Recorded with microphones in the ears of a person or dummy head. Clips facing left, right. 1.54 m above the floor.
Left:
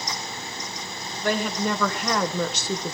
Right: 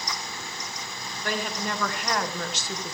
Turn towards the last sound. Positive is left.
turn(degrees=80)